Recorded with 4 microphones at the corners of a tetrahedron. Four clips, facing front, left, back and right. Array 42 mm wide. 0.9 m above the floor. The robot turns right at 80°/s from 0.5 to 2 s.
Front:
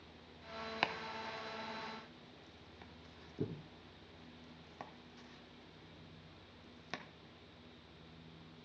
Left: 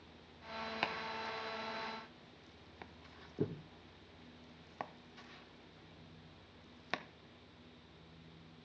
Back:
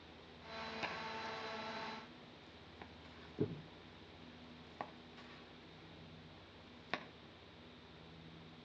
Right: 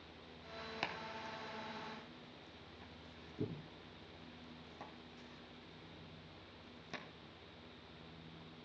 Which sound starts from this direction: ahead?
Chopping, at 0.8 s.